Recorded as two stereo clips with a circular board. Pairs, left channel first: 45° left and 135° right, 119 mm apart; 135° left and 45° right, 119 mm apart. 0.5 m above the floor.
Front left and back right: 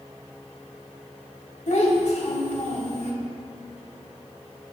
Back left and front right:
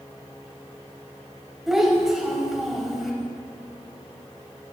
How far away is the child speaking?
About 2.5 m.